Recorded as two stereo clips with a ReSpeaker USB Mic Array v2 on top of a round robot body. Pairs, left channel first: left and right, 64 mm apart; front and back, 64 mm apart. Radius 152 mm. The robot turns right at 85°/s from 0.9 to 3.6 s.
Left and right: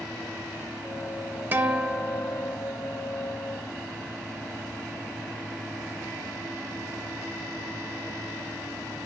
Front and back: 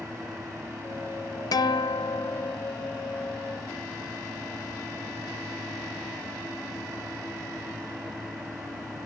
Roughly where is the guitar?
Ahead right.